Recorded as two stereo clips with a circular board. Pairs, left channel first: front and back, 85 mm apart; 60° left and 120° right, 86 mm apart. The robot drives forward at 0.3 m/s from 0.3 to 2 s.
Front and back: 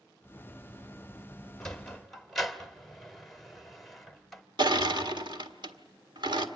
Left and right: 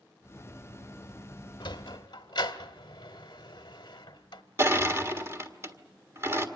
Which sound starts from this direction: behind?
Crushing, at 4.6 s.